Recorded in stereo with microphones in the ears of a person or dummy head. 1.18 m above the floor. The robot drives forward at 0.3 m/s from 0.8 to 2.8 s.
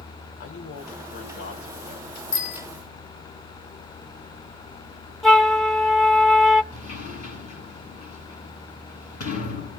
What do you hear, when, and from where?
0.4 s a man speaking: 50° left (ahead or behind), 4 m; by 2.2 s 45° left (ahead or behind), 4.5 m
2.3 s a bicycle bell: 75° left (ahead or behind), 2.5 m
5.2 s a flute: centre (ahead or behind), 0.5 m
6.7 s a sliding door: 50° left (ahead or behind), 8 m